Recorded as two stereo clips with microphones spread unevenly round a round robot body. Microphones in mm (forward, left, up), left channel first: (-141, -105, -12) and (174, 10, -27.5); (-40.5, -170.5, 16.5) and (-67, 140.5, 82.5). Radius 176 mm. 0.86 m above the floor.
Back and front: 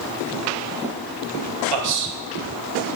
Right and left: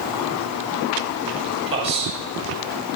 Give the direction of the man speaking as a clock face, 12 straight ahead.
11 o'clock.